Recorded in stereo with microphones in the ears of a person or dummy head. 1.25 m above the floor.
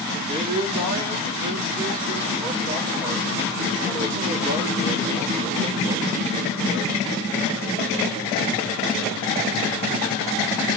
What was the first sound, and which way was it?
A man speaking, 30° right (ahead or behind).